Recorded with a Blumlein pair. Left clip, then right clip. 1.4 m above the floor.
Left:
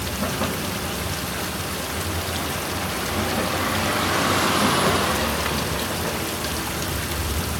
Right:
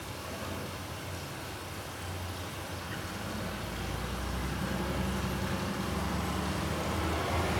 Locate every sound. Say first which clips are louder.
0.0 s running water: left 14 dB; 45° left, 1.2 m